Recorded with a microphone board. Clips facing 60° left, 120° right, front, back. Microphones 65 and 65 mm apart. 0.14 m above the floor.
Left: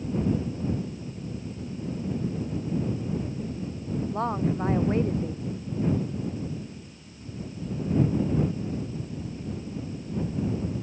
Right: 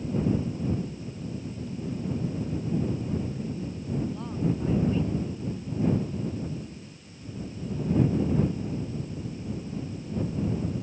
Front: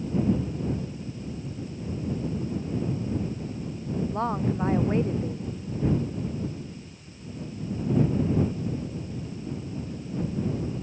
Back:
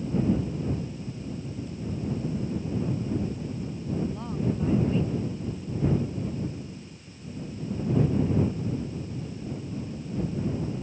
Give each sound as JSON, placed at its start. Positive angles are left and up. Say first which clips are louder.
{"t": 4.1, "sound": "a woman speaking", "louder": "left 6 dB, front 3 dB", "azimuth_deg": 30}